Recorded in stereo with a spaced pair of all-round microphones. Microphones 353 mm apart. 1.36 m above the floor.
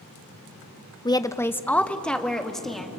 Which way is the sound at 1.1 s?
15° left (ahead or behind).